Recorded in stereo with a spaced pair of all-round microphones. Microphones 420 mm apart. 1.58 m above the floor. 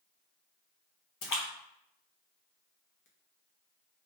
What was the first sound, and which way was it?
A splash, 50° left (ahead or behind).